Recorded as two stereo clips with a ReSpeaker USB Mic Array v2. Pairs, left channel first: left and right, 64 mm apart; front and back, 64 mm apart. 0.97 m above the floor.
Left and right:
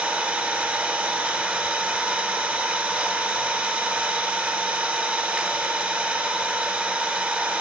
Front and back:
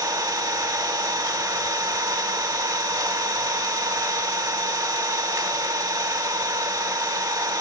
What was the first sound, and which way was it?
An engine running, 160° right.